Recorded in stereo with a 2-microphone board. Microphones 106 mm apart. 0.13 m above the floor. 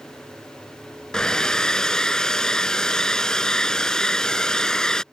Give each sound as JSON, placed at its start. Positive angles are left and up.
{"t": 1.1, "sound": "a hair dryer", "side_deg": 5}